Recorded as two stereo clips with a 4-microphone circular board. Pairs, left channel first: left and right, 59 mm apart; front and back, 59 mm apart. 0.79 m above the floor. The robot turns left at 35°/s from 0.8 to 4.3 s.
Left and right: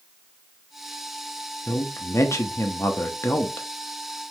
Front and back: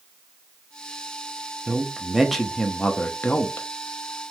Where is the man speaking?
110° left, 0.5 m; by 3.7 s 40° left, 0.5 m.